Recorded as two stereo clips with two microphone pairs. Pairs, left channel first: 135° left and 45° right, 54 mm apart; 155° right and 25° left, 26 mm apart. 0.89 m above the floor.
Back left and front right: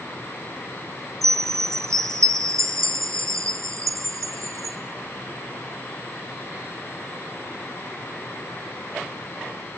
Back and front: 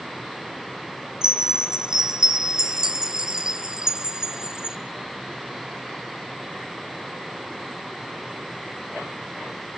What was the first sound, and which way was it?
A chime, 35° right.